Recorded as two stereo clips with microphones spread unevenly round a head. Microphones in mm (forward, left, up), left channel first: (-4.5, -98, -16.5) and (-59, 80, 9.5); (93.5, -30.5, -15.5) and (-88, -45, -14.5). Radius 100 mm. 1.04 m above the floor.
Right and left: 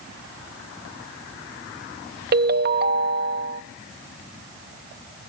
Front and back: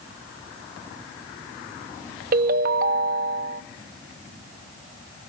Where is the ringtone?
140° left, 0.6 m.